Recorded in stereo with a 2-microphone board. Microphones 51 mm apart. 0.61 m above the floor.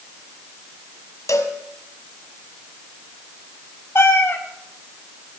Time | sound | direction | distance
1.3 | a cowbell | 80° left | 1.6 m
4.0 | a cat meowing | 50° left (ahead or behind) | 1.5 m